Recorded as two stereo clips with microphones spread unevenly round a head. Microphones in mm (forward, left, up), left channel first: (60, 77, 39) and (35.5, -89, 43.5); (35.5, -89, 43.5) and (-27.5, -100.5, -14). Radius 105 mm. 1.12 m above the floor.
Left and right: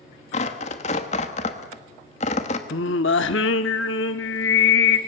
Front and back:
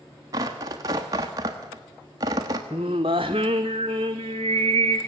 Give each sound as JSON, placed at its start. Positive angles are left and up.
{"t": 0.3, "sound": "tearing paper", "azimuth_deg": 140, "distance_m": 1.3}
{"t": 2.7, "sound": "singing", "azimuth_deg": 110, "distance_m": 1.0}